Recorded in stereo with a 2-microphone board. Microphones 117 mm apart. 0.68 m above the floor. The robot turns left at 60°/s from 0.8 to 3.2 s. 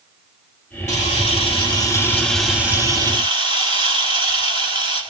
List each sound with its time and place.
0.9 s a camera shutter: 95° left, 4 m; by 5.0 s 45° right, 4 m